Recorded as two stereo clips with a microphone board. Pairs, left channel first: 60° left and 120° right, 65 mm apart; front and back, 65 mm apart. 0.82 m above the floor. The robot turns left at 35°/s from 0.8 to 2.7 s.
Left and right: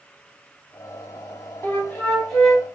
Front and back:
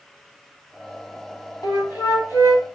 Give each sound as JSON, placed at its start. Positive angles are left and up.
{"t": 1.6, "sound": "a flute", "azimuth_deg": 0, "distance_m": 1.8}